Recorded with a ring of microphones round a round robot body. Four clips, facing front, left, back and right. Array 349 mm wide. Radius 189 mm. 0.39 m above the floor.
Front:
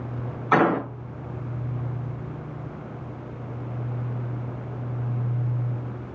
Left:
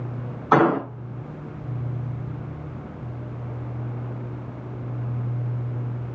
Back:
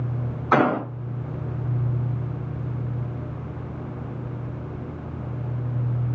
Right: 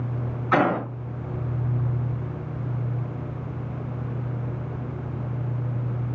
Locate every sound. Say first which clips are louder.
0.5 s an explosion: left 4 dB, even; 100° left, 5 m